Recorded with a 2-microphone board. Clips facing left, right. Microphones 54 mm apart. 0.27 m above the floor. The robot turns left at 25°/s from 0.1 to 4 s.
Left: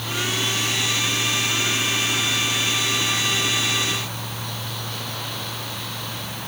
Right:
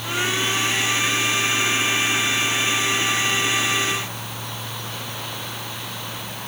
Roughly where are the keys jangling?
I don't hear keys jangling.